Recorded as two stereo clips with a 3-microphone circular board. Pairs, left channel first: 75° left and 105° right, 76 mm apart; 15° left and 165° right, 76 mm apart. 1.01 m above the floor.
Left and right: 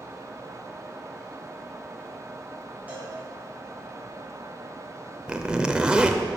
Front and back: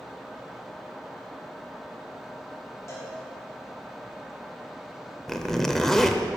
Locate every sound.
2.9 s a cowbell: 35° right, 3.5 m
5.3 s a zipper: 55° right, 0.7 m